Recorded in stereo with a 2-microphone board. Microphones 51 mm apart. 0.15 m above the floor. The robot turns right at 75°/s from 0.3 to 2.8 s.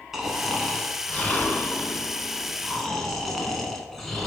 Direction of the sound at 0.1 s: 10° right.